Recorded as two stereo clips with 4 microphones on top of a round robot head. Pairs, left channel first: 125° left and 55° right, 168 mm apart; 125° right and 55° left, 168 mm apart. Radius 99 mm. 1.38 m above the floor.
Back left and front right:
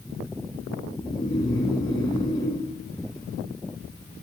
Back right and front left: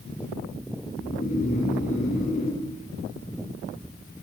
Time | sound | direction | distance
1.0 | snoring | 170° right | 3 m